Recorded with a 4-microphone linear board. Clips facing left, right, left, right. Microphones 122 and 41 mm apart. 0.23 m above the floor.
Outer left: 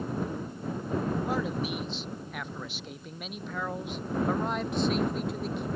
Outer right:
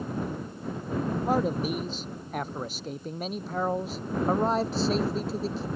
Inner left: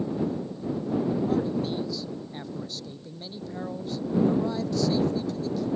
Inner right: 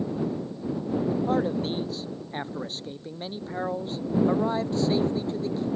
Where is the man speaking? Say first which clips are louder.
Outer right 4 dB, inner right 1 dB; 45° right (ahead or behind); by 5.7 s 30° right (ahead or behind).